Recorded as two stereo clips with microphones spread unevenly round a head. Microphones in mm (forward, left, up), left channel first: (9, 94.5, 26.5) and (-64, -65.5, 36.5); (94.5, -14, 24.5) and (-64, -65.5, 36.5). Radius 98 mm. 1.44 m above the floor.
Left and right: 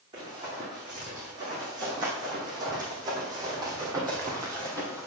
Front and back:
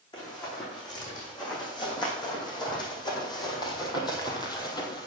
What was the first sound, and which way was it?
Running footsteps, 45° right.